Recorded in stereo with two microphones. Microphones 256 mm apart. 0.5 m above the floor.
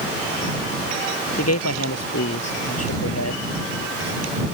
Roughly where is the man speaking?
Left.